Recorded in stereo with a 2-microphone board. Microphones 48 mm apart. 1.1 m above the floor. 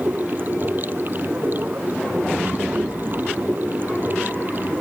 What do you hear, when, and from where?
0.0 s running water: 40° right (ahead or behind)